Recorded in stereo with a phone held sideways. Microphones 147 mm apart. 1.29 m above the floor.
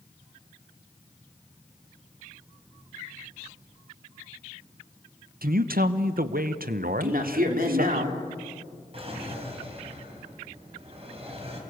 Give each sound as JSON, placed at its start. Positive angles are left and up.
{"t": 5.4, "sound": "a man speaking", "side_deg": -80, "distance_m": 1.0}
{"t": 6.8, "sound": "a man speaking", "side_deg": -75, "distance_m": 3.5}
{"t": 8.9, "sound": "a drawer", "side_deg": -45, "distance_m": 4.0}